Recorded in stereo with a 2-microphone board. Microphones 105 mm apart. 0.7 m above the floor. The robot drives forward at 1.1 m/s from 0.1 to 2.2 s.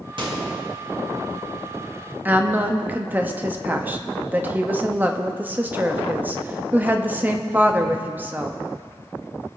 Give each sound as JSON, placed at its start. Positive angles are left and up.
{"t": 0.2, "sound": "a microwave", "side_deg": -50, "distance_m": 2.0}
{"t": 2.2, "sound": "a woman speaking", "side_deg": -20, "distance_m": 0.8}